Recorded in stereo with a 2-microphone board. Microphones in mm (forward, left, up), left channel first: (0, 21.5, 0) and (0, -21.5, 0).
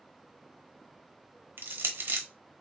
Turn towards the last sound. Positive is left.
turn(degrees=-55)  # may be behind; listen again after turning